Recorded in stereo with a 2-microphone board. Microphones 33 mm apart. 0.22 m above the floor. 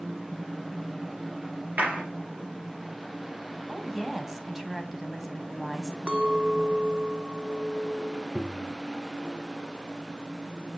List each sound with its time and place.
1.8 s a clap: 65° right (ahead or behind), 4.5 m
3.7 s a woman speaking: 10° right (ahead or behind), 1.7 m
6.1 s a clink: 40° right (ahead or behind), 1.1 m
8.3 s tapping: 65° left (ahead or behind), 1.5 m